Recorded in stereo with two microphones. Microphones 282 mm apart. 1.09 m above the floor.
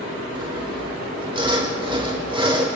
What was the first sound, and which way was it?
Sawing, 15° right (ahead or behind).